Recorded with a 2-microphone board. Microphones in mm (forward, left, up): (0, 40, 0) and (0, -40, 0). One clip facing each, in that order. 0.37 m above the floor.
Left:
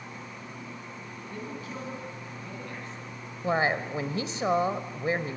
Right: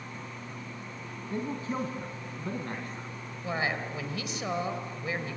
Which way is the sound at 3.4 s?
35° left (ahead or behind).